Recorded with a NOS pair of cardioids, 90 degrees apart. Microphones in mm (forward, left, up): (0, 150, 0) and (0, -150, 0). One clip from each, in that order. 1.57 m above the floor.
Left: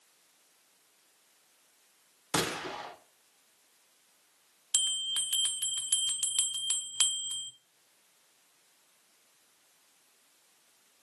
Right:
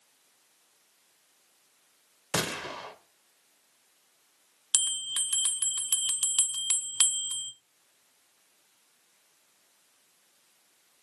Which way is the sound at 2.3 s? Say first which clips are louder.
Right 1 dB; 5° right.